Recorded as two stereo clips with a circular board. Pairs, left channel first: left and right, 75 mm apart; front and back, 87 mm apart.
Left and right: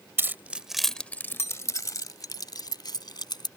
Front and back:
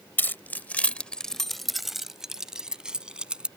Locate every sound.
0.2 s keys jangling: 55° right; by 3.5 s 100° left